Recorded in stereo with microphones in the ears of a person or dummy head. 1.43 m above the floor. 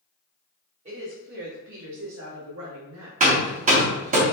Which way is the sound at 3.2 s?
45° right (ahead or behind).